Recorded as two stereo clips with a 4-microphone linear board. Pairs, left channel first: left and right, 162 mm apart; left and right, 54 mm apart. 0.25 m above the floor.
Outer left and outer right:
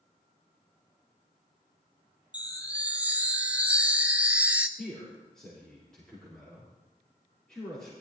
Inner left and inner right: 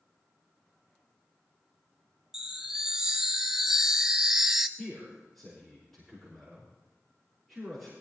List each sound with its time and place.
2.3 s a chime: 10° right (ahead or behind), 0.7 m
4.8 s a man speaking: 5° left (ahead or behind), 5 m